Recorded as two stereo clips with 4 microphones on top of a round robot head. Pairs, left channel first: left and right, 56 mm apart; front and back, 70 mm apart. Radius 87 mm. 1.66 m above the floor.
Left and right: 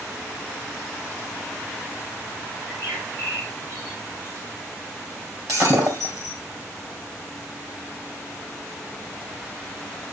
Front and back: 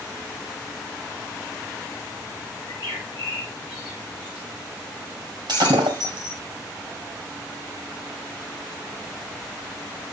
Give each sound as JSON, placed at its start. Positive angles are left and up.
{"t": 2.6, "sound": "a bird", "azimuth_deg": -110, "distance_m": 5.5}
{"t": 5.5, "sound": "breaking glass", "azimuth_deg": -140, "distance_m": 2.5}